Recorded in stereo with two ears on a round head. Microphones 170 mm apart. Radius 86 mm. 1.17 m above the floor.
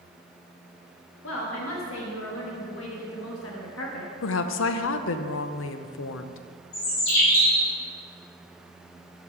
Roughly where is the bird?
Left.